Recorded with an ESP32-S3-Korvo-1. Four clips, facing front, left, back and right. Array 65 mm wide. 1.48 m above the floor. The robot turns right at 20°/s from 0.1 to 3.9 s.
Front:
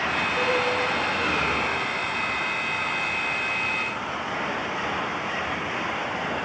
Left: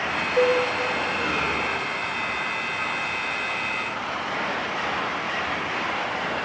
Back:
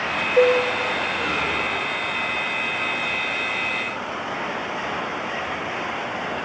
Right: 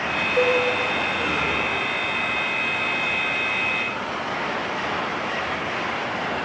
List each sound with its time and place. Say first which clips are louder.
0.4 s dishes clattering: even, back 10 dB; straight behind, 3.5 m; by 0.6 s 175° right, 3.5 m